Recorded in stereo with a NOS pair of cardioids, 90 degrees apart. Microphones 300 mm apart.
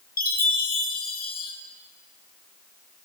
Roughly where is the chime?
Ahead left.